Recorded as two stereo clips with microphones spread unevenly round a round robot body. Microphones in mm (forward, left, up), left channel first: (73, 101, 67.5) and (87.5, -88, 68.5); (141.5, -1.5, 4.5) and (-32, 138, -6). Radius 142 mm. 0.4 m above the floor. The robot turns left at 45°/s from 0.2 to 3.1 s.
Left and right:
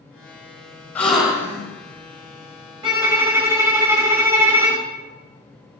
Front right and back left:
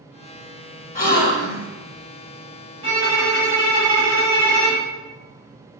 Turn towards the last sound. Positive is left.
turn(degrees=-165)